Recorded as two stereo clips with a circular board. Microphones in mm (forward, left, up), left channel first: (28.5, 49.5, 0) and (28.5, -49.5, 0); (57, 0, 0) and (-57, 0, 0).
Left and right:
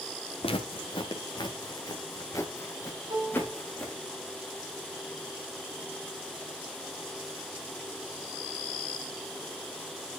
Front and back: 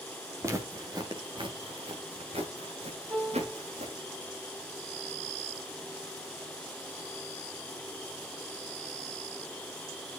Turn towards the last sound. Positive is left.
turn(degrees=-130)